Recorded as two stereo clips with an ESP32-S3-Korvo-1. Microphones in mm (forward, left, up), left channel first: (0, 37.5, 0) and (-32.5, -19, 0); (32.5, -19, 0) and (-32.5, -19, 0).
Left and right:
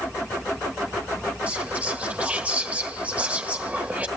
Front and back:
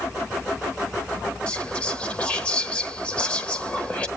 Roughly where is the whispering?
Ahead right.